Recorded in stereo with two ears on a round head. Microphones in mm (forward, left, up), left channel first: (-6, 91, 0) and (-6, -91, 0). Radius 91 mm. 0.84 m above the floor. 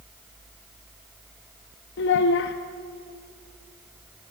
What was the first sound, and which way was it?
A child speaking, 60° left (ahead or behind).